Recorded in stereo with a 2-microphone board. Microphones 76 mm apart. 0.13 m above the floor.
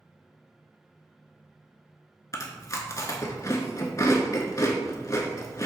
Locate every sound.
2.3 s chewing: 45° left (ahead or behind), 0.5 m